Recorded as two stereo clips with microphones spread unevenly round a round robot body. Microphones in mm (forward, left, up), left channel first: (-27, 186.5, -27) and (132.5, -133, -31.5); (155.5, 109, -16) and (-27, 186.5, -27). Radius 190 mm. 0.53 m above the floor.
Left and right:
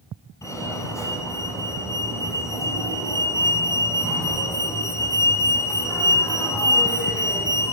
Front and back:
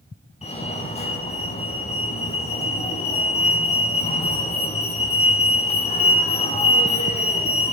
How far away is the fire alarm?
About 8 m.